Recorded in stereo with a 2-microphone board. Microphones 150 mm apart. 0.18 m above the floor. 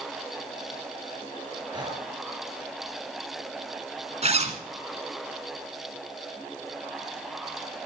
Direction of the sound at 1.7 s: 30° right (ahead or behind).